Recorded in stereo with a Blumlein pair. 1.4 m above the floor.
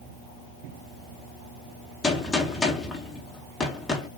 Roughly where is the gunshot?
Ahead.